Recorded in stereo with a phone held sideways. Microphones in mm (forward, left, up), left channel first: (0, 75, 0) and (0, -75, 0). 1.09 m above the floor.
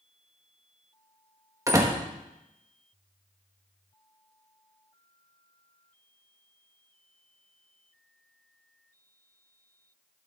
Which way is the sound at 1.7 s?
20° right (ahead or behind).